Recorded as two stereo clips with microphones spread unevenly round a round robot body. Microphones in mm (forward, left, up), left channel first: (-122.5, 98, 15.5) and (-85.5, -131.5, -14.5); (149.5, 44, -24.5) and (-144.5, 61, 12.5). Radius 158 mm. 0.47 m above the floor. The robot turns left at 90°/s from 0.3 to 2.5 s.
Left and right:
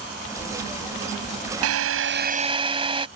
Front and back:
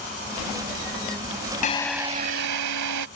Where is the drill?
65° right; by 3.1 s 145° right.